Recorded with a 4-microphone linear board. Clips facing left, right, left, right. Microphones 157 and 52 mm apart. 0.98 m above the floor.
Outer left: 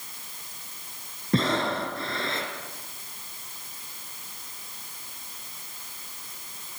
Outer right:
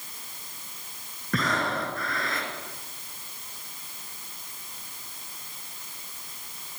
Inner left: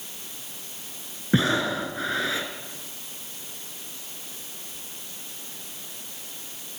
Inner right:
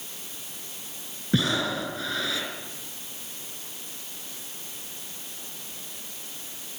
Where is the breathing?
30° left (ahead or behind), 3.5 m.